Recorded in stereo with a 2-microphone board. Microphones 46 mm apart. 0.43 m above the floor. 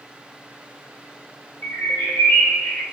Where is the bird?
75° left (ahead or behind), 1.1 m.